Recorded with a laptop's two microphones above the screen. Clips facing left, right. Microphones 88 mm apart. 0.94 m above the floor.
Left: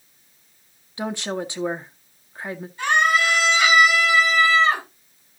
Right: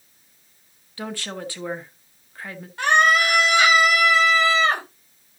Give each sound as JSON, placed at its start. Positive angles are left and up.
{"t": 1.0, "sound": "a woman speaking", "side_deg": 20, "distance_m": 0.8}
{"t": 2.8, "sound": "a scream", "side_deg": -85, "distance_m": 5.5}